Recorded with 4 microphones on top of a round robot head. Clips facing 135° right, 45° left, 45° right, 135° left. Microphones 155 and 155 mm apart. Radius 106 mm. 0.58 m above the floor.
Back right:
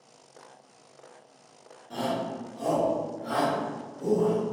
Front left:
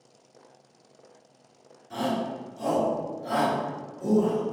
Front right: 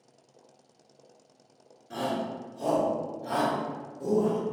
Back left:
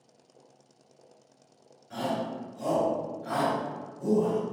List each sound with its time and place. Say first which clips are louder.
1.9 s a shout: front left 2 dB, even; 90° right, 1.4 m; by 4.4 s 95° right, 2.5 m